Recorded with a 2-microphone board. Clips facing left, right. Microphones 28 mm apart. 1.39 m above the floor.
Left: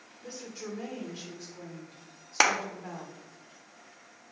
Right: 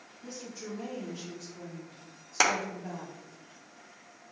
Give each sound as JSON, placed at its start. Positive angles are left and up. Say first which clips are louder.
{"t": 0.2, "sound": "a woman speaking", "louder": "left 1 dB", "side_deg": 30, "distance_m": 1.6}
{"t": 2.4, "sound": "a clap", "louder": "left 2 dB", "side_deg": 20, "distance_m": 0.7}